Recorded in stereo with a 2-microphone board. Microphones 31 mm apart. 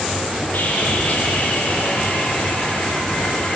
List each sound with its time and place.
0.5 s sawing: 50° left (ahead or behind), 8 m